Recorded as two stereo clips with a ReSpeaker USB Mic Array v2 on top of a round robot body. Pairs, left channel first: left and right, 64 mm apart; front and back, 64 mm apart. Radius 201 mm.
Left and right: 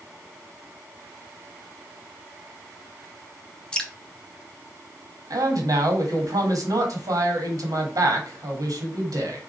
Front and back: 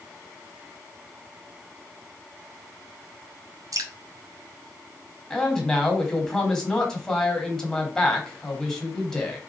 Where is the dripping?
165° left, 0.9 m.